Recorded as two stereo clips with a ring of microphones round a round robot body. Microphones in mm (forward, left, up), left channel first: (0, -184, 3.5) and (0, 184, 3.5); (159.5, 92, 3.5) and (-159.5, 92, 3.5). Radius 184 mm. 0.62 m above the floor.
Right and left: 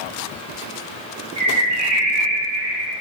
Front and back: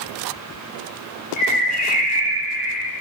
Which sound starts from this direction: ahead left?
A bird, at 1.4 s.